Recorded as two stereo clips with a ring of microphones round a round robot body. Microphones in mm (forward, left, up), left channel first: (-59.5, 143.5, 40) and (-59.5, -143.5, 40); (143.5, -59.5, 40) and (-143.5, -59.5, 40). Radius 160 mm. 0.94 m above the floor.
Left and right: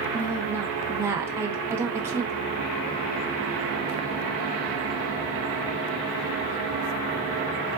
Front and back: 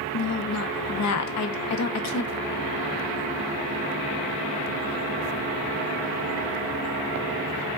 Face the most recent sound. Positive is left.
turn(degrees=-10)